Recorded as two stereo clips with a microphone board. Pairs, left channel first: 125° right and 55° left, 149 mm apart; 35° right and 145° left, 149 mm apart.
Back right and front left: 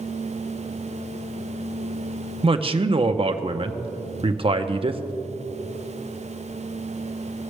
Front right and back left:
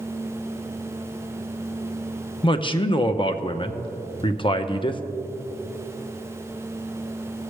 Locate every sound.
2.4 s a man speaking: 10° left, 0.6 m